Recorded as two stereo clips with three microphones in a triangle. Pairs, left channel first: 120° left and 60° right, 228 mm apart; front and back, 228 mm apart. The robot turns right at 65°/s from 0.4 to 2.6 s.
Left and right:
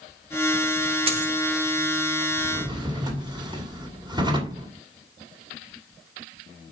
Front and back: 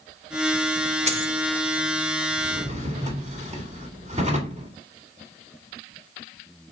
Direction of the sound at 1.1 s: 125° right.